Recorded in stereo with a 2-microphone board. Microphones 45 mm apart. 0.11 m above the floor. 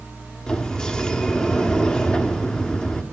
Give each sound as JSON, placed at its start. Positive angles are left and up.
{"t": 0.5, "sound": "a sliding door", "side_deg": 20, "distance_m": 1.2}